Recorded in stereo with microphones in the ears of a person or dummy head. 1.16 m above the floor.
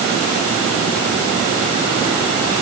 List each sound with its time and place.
Only background noise.